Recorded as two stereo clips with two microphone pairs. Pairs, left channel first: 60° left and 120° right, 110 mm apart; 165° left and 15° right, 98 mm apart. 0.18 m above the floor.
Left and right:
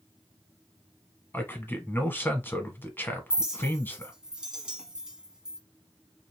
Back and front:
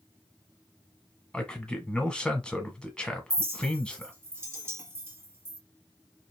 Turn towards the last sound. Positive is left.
turn(degrees=-45)